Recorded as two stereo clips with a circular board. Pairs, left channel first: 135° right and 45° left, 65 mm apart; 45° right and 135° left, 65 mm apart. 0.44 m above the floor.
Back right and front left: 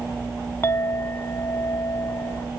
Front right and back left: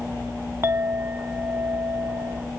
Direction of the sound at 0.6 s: Straight behind.